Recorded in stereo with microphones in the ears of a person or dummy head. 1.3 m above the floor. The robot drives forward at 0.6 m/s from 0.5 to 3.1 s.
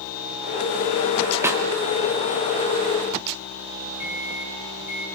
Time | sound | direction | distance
1.4 | a snare drum | 10° right (ahead or behind) | 1.6 m
4.0 | a microwave | 45° left (ahead or behind) | 4.5 m